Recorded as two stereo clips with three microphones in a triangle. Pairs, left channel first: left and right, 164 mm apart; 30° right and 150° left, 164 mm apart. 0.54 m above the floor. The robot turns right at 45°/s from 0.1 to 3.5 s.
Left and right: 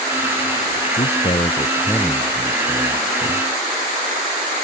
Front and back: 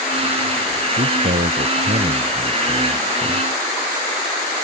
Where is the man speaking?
125° left; by 3.4 s 120° right.